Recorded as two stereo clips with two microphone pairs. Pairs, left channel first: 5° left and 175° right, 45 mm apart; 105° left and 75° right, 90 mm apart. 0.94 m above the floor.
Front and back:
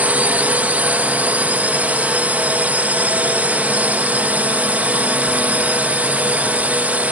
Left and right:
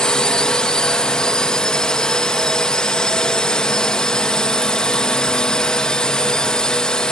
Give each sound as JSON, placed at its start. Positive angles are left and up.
{"t": 0.0, "sound": "a drone", "azimuth_deg": 180}